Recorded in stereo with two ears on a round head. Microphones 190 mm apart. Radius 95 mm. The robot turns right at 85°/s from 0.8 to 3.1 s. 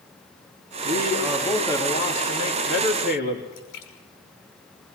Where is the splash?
65° left (ahead or behind), 5.5 m.